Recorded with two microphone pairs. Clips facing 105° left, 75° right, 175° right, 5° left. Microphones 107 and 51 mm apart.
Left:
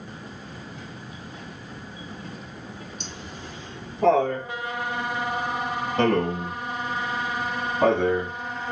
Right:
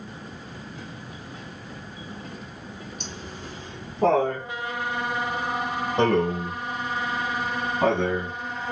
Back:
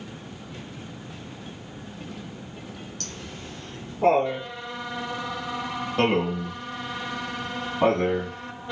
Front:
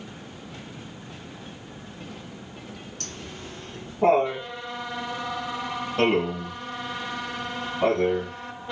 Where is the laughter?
50° right, 2.5 m; by 8.3 s 175° left, 1.8 m.